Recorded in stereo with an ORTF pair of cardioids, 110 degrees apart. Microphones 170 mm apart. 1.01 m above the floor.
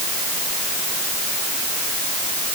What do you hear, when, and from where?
Only background noise.